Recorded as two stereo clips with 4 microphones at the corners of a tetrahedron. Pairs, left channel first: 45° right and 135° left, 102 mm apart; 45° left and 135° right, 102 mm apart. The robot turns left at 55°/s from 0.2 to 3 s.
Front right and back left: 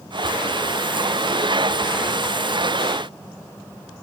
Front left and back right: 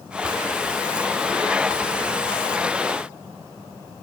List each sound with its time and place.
Only background noise.